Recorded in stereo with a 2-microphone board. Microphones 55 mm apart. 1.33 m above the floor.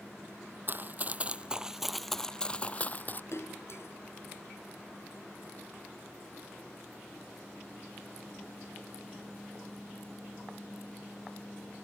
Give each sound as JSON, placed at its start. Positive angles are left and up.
{"t": 0.7, "sound": "running footsteps", "side_deg": -40}
{"t": 3.3, "sound": "a splash", "side_deg": 60}